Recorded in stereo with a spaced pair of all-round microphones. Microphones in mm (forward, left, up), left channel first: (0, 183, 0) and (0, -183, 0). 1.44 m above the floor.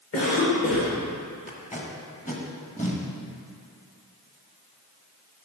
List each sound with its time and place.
0.1 s a cough: 40° left (ahead or behind), 1.9 m
1.5 s tape being pulled: 20° left (ahead or behind), 1.3 m